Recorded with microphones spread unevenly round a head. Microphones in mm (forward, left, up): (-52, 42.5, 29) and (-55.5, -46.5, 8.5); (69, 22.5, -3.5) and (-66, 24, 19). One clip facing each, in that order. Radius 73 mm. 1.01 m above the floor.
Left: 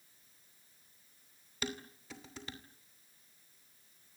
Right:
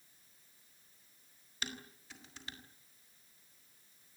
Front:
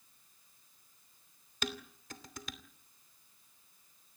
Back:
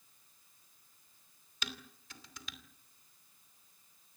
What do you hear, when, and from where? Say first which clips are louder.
1.6 s dishes clattering: left 5 dB, front 7 dB; 50° left, 2.5 m